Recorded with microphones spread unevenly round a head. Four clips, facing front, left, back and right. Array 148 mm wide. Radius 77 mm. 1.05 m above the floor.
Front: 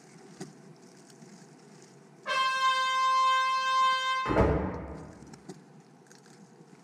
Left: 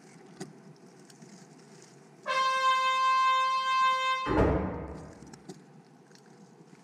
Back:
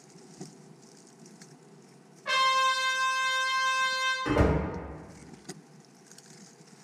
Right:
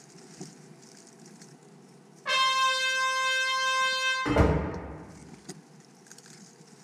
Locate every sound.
2.2 s a trumpet: 100° right, 1.5 m
4.2 s a door slam: 75° right, 1.2 m